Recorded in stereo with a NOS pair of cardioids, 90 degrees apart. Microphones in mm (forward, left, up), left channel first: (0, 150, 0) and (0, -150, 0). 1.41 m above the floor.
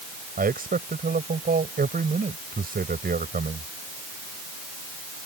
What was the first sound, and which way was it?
A man speaking, 30° right.